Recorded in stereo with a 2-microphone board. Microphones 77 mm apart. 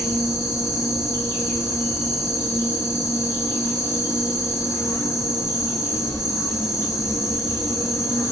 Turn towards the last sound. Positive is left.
turn(degrees=40)  # may be behind; listen again after turning